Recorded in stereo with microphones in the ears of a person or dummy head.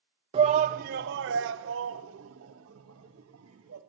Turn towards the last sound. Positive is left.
turn(degrees=-80)